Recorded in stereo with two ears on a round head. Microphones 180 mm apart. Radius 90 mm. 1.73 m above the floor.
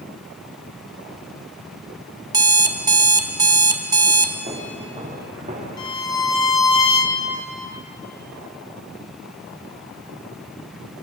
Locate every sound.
2.3 s an alarm clock: 20° right (ahead or behind), 1.2 m
4.5 s footsteps: 35° right (ahead or behind), 7 m
5.8 s a violin: 20° left (ahead or behind), 2 m